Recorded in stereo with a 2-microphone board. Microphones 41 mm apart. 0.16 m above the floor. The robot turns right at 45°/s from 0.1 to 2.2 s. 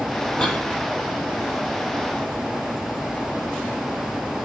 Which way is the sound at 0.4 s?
25° left (ahead or behind).